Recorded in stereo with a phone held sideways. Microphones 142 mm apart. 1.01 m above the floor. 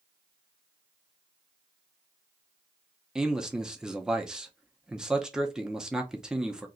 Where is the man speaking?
5° right (ahead or behind), 0.6 m.